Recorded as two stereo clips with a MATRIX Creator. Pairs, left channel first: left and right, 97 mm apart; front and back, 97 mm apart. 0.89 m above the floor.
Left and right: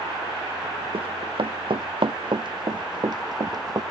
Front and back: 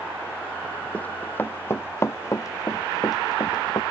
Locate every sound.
0.9 s running footsteps: 75° right; by 3.8 s 40° right